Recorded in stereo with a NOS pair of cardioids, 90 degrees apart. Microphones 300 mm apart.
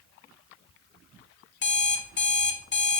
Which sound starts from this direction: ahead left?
An alarm clock, at 1.6 s.